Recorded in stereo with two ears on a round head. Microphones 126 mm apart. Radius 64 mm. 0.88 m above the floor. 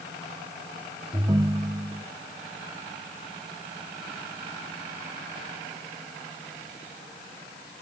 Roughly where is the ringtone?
Right.